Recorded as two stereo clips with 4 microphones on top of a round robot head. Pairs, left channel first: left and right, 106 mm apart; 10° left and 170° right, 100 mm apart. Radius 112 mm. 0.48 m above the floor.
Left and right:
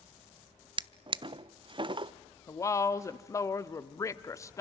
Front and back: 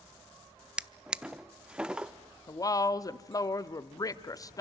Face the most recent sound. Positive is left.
turn(degrees=45)